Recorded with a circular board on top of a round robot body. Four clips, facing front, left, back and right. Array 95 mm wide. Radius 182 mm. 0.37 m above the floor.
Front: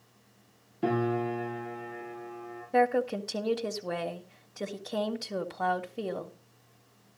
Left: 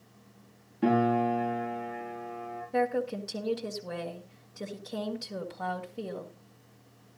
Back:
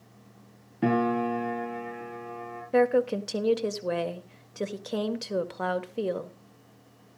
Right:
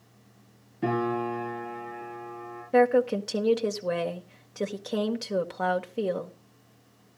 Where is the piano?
175° left, 7 m.